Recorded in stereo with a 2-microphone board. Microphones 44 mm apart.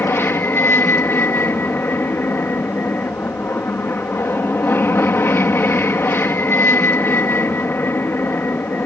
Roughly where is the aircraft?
Left.